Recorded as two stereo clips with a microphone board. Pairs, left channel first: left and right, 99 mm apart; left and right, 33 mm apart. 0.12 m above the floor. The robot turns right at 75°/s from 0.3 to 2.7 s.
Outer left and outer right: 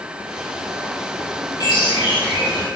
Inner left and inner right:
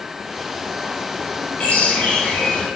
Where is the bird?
50° left, 4 m; by 2.7 s 130° left, 4 m.